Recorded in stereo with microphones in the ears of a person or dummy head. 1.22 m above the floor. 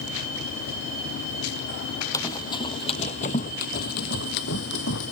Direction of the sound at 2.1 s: 20° left (ahead or behind).